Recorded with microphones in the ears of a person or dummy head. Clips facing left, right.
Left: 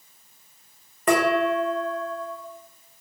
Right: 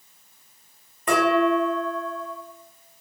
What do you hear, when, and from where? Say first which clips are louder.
1.1 s dishes clattering: right 1 dB; 45° left (ahead or behind), 0.9 m